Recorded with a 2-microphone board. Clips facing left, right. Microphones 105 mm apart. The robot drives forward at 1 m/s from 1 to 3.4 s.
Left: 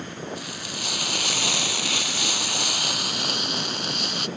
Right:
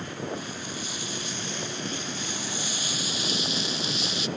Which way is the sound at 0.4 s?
65° left (ahead or behind).